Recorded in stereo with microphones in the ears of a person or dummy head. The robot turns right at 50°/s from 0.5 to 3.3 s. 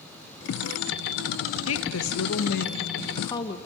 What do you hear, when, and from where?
1.7 s a woman speaking: 80° left, 1.1 m; by 3.6 s 160° left, 1.1 m